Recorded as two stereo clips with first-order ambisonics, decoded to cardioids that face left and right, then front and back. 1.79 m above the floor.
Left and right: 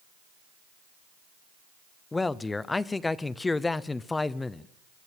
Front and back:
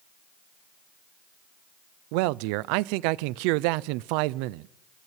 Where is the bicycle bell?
I don't hear a bicycle bell.